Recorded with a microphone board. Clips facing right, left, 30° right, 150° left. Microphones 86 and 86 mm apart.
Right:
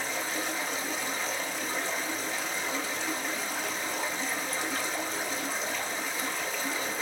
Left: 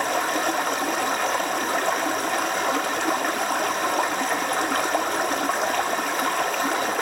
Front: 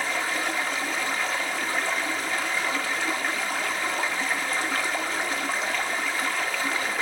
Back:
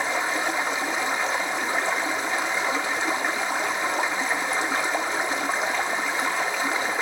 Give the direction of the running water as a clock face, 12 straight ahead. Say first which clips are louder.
Left 10 dB, back 3 dB; 9 o'clock.